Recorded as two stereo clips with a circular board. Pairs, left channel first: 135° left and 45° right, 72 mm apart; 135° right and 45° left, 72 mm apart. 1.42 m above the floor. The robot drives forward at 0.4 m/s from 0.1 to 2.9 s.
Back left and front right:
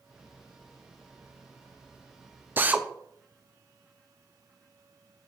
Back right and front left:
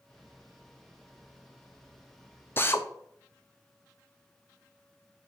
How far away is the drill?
About 0.8 m.